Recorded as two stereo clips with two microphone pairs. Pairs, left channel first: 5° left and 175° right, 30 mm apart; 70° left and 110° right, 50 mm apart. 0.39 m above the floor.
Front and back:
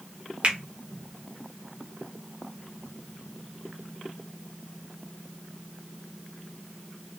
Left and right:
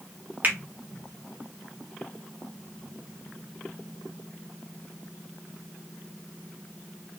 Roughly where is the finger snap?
Behind right.